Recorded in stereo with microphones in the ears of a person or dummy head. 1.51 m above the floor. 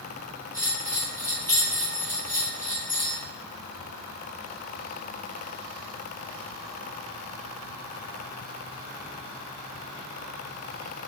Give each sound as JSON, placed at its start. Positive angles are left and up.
{"t": 0.5, "sound": "a bell", "side_deg": 10, "distance_m": 1.8}